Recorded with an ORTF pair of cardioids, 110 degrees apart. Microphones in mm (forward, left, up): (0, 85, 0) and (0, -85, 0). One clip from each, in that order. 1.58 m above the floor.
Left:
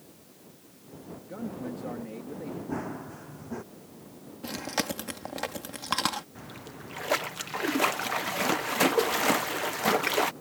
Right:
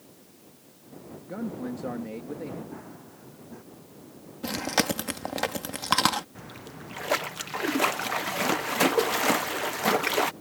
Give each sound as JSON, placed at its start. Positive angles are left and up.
{"t": 1.2, "sound": "a man speaking", "azimuth_deg": -25}
{"t": 2.7, "sound": "running footsteps", "azimuth_deg": 55}
{"t": 4.4, "sound": "chewing", "azimuth_deg": -30}
{"t": 6.3, "sound": "a splash", "azimuth_deg": -5}